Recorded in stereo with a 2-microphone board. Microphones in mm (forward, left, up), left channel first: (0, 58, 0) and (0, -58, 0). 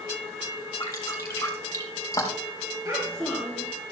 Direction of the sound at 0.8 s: 30° left (ahead or behind).